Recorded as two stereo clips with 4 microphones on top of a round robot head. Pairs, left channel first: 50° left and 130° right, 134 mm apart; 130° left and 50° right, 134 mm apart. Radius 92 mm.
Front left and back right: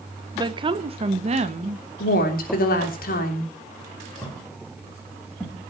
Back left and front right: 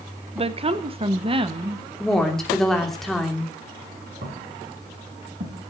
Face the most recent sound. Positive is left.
turn(degrees=-40)